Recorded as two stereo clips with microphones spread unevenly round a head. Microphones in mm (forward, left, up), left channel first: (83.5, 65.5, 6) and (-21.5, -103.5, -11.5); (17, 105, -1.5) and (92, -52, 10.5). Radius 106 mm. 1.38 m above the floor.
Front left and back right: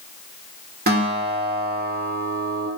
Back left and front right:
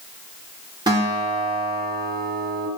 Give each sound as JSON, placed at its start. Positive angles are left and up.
{"t": 0.9, "sound": "a guitar", "azimuth_deg": -115, "distance_m": 1.1}